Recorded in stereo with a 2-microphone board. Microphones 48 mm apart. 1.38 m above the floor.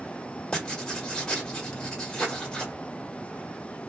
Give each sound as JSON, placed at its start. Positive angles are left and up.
{"t": 0.5, "sound": "writing", "side_deg": 15, "distance_m": 1.1}